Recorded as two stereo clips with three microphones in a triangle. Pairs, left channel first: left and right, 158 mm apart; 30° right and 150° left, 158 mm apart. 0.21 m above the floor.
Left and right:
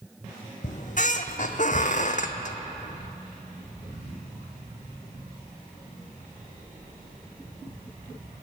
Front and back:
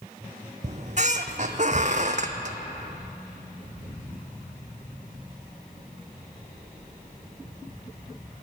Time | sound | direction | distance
0.6 | a squeak | 115° left | 0.6 m